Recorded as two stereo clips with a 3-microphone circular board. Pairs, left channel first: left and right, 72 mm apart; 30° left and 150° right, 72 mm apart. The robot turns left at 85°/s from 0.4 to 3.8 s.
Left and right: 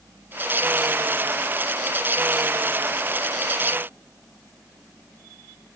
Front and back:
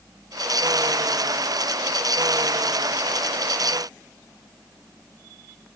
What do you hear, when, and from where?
Only background noise.